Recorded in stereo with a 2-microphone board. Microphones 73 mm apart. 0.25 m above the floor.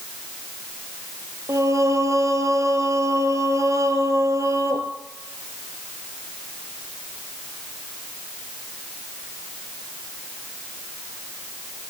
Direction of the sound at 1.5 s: 45° right (ahead or behind).